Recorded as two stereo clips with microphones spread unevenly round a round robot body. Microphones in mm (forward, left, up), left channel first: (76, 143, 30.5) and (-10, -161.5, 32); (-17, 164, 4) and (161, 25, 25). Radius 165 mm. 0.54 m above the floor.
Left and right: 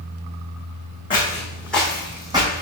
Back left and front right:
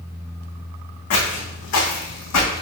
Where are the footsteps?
150° left, 1.9 m; by 2.6 s 175° right, 1.6 m.